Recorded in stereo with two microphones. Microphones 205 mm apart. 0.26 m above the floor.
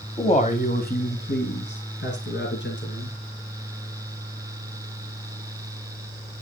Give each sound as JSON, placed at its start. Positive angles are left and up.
{"t": 0.2, "sound": "a man speaking", "side_deg": 25, "distance_m": 1.3}